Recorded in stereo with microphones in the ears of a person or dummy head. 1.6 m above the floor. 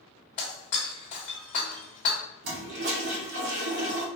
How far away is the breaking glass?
About 1.4 m.